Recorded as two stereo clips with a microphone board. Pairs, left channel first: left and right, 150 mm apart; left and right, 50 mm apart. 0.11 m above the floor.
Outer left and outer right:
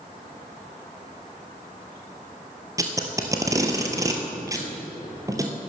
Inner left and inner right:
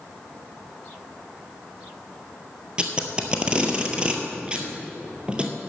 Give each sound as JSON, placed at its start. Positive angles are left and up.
{"t": 2.8, "sound": "tape being pulled", "side_deg": -20, "distance_m": 1.4}